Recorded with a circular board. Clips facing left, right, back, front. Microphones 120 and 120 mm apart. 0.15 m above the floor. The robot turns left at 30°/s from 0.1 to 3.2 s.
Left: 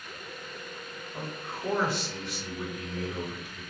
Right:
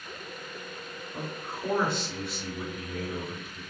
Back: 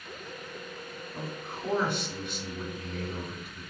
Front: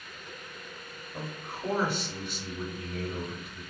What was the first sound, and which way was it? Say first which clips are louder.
A man speaking: right 1 dB, even; 30° right.